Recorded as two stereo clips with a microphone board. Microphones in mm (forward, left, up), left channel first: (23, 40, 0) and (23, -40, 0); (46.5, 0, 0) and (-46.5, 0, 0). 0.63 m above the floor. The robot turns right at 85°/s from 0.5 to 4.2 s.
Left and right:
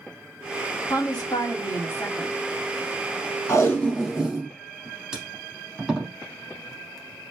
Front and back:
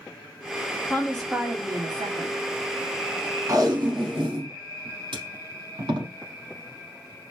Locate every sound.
0.9 s a woman speaking: 60° left, 1.0 m; by 2.4 s 175° right, 1.0 m
3.5 s tape being pulled: 130° left, 1.0 m; by 6.1 s 170° right, 1.0 m